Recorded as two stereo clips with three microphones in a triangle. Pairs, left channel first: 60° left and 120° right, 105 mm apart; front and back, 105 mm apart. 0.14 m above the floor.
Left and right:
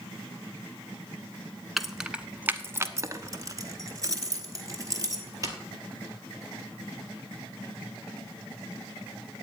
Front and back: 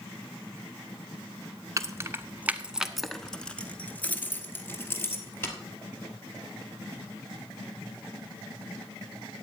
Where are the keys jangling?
150° left, 0.9 m; by 5.5 s 65° right, 2.5 m.